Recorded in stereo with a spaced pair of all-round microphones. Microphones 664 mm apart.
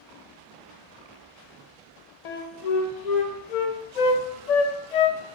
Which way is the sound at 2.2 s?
75° left (ahead or behind).